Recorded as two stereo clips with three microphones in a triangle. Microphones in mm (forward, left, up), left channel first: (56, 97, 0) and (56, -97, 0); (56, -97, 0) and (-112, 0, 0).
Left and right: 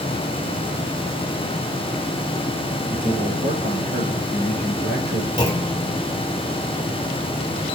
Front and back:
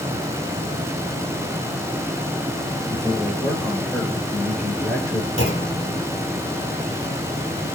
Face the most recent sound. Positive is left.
turn(degrees=155)